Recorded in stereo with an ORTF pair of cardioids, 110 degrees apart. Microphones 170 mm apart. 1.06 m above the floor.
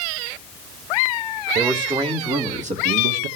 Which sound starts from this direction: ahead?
A man speaking, at 1.6 s.